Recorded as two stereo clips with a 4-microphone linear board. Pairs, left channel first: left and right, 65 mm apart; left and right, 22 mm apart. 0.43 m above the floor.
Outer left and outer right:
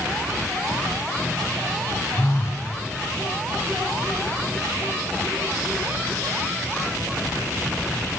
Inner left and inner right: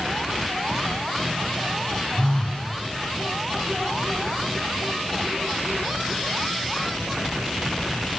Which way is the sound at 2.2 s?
40° left (ahead or behind).